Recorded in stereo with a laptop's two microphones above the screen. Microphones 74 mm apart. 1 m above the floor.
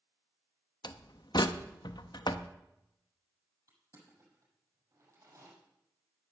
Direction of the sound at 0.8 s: 75° left (ahead or behind).